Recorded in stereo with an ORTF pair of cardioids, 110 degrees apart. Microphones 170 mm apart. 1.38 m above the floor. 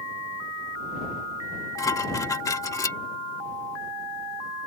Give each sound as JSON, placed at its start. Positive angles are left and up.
{"t": 1.8, "sound": "dishes clattering", "azimuth_deg": 20}